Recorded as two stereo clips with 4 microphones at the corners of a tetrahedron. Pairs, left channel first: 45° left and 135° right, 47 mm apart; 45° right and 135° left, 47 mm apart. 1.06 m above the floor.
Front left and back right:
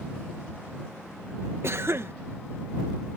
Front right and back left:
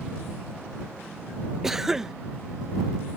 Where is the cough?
150° right.